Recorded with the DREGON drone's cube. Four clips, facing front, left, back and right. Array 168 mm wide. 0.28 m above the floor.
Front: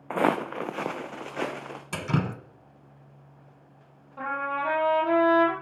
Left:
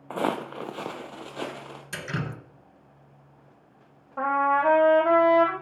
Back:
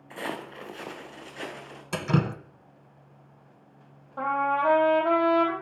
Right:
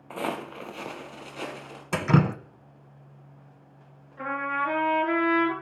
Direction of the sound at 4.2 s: 115° left.